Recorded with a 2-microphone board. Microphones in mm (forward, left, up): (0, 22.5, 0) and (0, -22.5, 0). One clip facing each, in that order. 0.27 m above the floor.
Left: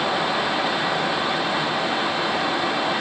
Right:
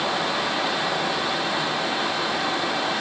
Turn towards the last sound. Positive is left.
No sound to turn to.